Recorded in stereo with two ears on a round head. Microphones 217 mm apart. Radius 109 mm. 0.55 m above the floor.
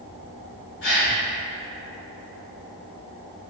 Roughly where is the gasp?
Left.